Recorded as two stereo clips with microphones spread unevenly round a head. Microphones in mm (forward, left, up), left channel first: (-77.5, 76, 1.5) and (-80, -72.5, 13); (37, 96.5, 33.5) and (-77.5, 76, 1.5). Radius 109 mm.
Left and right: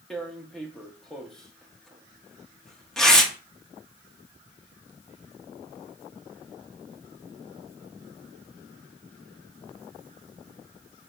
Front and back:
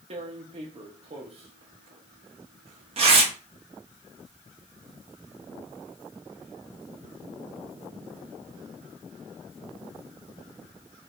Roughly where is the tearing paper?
Behind.